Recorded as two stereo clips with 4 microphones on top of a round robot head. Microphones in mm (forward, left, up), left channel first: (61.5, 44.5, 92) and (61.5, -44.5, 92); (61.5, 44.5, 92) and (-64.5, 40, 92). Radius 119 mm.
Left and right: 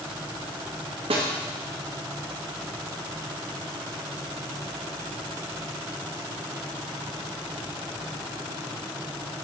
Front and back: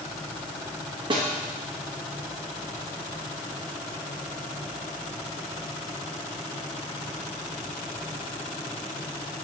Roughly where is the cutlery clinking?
I don't hear cutlery clinking.